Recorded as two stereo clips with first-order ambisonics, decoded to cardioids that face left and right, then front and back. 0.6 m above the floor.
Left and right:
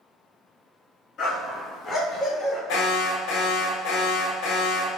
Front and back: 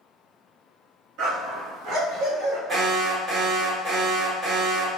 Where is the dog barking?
145° left, 1.5 m; by 2.6 s 165° left, 2 m.